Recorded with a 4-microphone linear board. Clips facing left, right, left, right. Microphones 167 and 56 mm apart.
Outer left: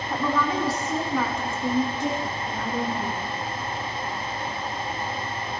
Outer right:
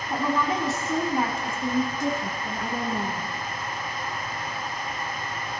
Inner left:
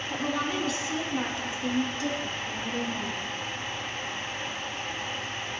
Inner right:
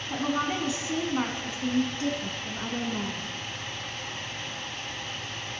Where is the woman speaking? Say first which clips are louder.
Even, inner right 2 dB; 15° right (ahead or behind), 1.9 m; by 3.3 s 55° right (ahead or behind), 2.5 m.